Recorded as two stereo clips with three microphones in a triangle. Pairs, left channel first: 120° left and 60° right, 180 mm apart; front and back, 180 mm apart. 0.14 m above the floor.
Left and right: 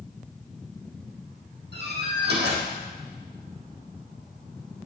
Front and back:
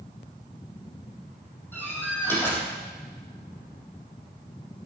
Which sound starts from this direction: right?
A door slam, at 1.7 s.